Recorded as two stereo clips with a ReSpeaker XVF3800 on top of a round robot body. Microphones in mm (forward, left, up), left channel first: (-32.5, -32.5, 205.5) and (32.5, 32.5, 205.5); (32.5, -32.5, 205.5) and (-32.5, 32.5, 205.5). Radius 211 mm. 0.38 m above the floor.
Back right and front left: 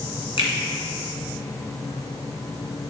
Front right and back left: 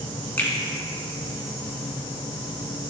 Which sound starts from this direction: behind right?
A finger snap, at 0.4 s.